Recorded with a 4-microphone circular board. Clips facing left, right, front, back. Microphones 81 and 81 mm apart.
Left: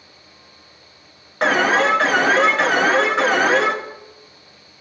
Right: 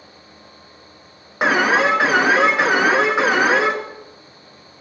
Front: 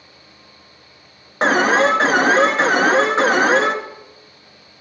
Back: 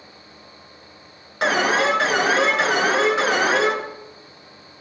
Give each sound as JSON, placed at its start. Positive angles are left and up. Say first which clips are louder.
{"t": 1.4, "sound": "an alarm", "louder": "even, front 4 dB", "azimuth_deg": -20, "distance_m": 1.4}